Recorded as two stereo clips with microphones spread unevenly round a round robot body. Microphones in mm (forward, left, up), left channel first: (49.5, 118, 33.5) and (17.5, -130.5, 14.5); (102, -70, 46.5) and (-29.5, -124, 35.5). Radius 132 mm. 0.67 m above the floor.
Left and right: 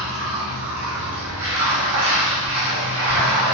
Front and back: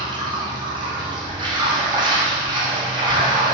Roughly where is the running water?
Right.